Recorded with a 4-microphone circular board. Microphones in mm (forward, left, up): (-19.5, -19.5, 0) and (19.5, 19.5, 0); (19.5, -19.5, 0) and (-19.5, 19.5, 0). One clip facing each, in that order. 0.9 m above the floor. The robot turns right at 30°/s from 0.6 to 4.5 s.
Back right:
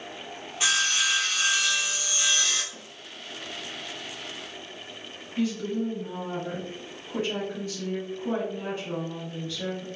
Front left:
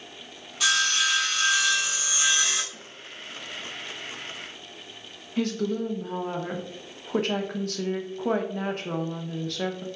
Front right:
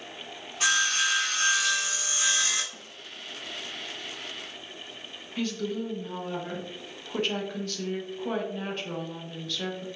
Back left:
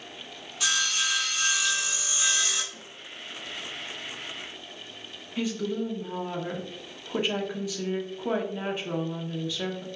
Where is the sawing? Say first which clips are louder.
Front left 2 dB, front right 3 dB; 80° right, 0.9 m; by 2.6 s 20° right, 0.9 m.